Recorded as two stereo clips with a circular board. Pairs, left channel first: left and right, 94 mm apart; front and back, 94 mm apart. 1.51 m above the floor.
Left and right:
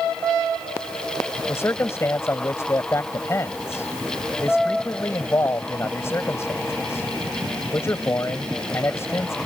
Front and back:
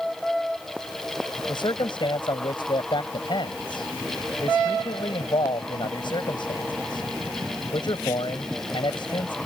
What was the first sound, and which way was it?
A man speaking, 30° left.